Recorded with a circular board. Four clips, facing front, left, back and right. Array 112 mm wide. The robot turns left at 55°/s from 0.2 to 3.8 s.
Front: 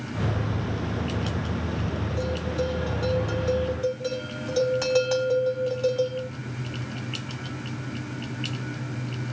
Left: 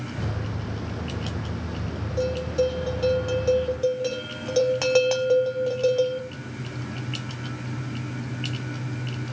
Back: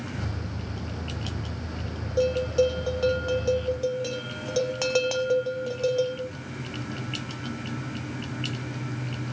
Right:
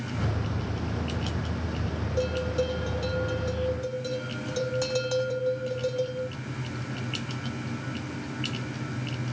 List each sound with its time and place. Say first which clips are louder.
2.2 s a bell: left 4 dB, back 8 dB; 155° right, 1.2 m; by 6.2 s 115° left, 1.2 m